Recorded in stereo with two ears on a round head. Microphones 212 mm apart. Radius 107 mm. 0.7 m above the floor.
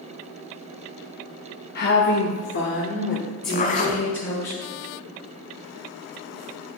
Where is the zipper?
30° left (ahead or behind), 1.0 m.